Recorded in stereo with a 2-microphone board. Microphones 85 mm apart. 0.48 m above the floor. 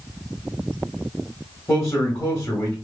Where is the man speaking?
30° left (ahead or behind), 1.4 m.